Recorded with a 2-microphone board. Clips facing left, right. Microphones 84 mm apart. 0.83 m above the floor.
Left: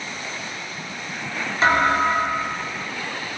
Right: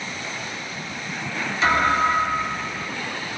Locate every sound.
1.6 s a thud: 35° left (ahead or behind), 0.9 m